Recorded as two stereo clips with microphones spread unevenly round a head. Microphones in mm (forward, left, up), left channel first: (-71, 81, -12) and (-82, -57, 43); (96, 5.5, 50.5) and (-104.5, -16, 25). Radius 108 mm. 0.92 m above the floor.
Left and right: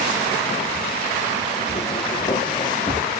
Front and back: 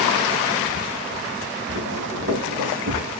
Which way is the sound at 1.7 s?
145° left.